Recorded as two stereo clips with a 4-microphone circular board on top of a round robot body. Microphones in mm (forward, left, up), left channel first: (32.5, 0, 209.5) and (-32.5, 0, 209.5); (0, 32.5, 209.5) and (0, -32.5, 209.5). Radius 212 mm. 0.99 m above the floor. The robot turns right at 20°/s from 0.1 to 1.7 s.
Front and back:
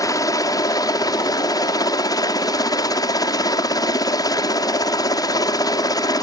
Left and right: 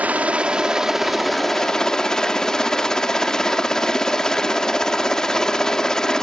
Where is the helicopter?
25° right; by 6.2 s 10° left.